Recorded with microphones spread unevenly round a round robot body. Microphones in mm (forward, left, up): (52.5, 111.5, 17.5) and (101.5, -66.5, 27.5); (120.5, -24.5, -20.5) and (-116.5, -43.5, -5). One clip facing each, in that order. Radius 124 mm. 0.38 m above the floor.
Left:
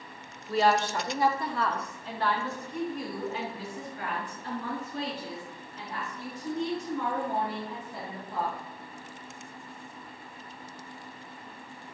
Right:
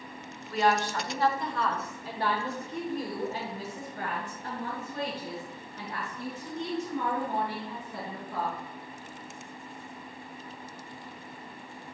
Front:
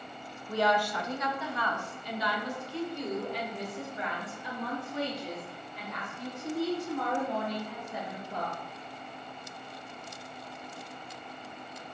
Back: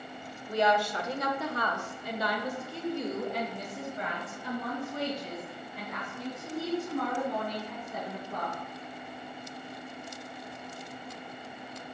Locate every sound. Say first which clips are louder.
0.5 s a woman speaking: left 2 dB, back 1 dB; 115° left, 0.9 m; by 8.6 s 125° right, 4 m